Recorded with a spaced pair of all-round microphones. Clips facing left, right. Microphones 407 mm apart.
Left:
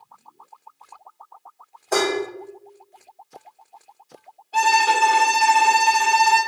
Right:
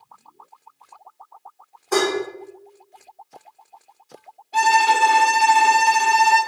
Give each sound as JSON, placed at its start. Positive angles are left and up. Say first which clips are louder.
{"t": 1.9, "sound": "dishes clattering", "louder": "right 1 dB", "side_deg": -15, "distance_m": 1.7}
{"t": 4.5, "sound": "a violin", "louder": "right 1 dB", "side_deg": -35, "distance_m": 1.3}